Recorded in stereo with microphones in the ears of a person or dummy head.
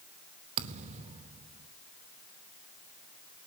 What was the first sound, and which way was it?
A thud, 30° right (ahead or behind).